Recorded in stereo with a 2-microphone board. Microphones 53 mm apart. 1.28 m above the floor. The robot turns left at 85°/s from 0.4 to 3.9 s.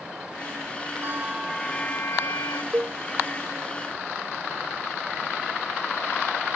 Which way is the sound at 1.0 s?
140° right.